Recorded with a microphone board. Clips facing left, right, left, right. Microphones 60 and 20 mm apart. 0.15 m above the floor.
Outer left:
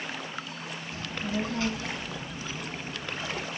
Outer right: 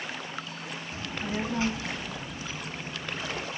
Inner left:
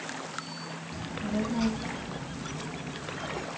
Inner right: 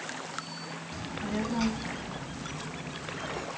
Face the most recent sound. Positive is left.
turn(degrees=-5)  # may be behind; listen again after turning